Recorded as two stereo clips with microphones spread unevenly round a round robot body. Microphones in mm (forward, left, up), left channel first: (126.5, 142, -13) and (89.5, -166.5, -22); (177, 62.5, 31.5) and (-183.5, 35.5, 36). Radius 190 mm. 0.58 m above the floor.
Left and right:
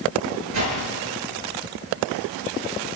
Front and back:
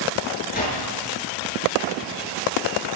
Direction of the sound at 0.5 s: 65° right.